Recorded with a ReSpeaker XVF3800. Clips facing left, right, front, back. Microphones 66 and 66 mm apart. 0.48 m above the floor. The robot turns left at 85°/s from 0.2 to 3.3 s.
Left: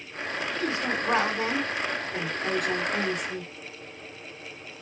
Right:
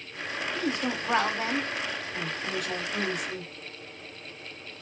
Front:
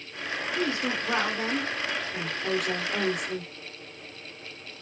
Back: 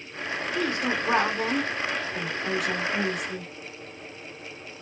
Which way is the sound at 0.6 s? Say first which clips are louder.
Left 1 dB, back 2 dB; 155° right.